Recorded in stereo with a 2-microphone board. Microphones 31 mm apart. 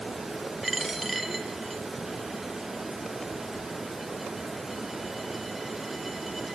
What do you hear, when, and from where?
0.6 s a dropped coin: 5° right (ahead or behind), 0.9 m